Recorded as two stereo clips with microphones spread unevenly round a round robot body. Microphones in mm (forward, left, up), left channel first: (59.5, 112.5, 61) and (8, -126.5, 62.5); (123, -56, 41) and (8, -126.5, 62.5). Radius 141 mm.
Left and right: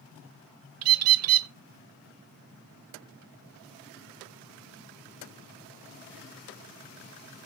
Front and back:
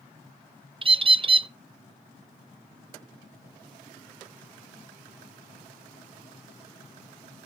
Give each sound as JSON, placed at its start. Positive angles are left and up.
{"t": 0.8, "sound": "a bird", "azimuth_deg": -90, "distance_m": 0.6}